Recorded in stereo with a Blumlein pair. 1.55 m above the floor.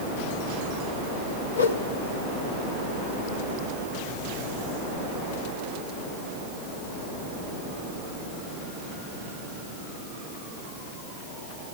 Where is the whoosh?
70° left, 0.8 m.